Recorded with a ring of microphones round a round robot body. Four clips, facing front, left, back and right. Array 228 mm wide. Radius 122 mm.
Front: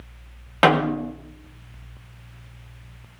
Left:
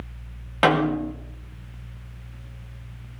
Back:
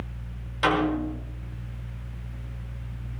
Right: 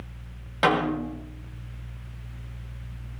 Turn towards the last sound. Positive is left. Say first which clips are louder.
# left 3 dB, front 5 dB
turn(degrees=20)